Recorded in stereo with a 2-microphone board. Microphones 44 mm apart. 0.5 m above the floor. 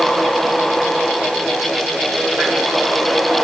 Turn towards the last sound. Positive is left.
No sound to turn to.